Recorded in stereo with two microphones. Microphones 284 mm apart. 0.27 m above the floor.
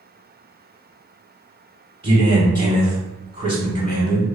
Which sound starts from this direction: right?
A man speaking, at 2.0 s.